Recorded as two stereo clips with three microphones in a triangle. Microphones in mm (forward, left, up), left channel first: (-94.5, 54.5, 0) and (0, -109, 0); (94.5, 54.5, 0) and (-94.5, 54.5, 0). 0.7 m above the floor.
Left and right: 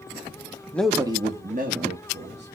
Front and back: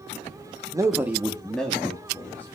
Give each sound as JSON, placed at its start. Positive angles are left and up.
{"t": 0.7, "sound": "a man speaking", "azimuth_deg": 180, "distance_m": 0.7}